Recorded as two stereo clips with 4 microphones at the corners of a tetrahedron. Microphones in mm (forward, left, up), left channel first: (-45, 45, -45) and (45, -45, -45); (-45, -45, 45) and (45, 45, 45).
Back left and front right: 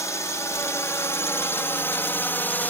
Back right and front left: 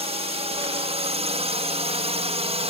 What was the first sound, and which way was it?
A drone, 70° left.